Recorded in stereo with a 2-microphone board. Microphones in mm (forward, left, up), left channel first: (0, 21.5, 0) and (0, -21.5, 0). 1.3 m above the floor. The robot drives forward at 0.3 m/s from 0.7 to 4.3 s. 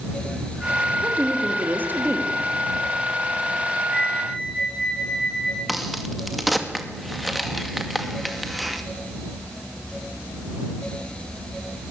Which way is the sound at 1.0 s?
40° right (ahead or behind).